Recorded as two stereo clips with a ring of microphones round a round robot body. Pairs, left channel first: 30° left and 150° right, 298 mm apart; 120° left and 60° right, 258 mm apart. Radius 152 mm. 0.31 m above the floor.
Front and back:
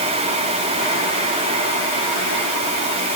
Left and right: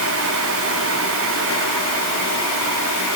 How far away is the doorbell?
No doorbell in this recording.